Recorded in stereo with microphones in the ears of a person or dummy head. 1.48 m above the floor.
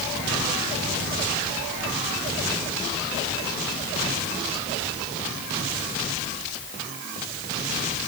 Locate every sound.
Only background noise.